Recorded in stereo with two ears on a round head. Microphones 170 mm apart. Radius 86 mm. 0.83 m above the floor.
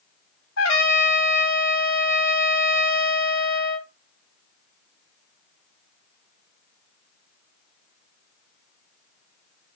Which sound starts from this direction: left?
A trumpet, at 0.6 s.